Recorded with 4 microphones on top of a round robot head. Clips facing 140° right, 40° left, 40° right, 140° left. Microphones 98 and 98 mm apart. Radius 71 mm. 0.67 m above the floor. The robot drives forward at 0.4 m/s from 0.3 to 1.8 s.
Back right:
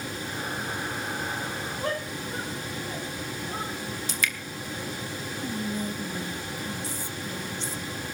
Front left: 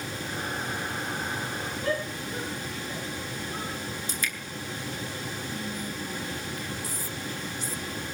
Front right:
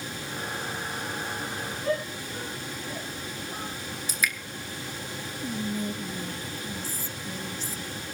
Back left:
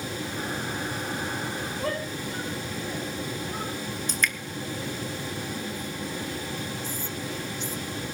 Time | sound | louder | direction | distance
1.8 | a shout | front left 2 dB, front right 3 dB | 165° left | 6.5 m
4.1 | dripping | back right 3 dB, even | 125° right | 2.5 m
5.4 | whispering | back right 8 dB, front right 3 dB | 85° right | 1.2 m